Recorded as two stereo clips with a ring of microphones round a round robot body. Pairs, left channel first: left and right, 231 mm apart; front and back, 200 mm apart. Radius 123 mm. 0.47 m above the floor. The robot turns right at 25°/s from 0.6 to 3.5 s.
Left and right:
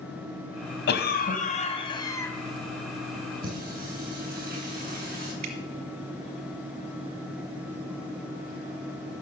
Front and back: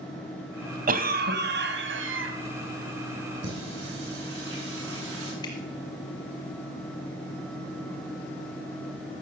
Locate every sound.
0.9 s a cough: 135° left, 3 m; by 2.3 s 170° left, 3 m
3.4 s singing: 145° right, 7 m; by 5.3 s 140° right, 7 m
5.4 s dripping: 75° right, 2 m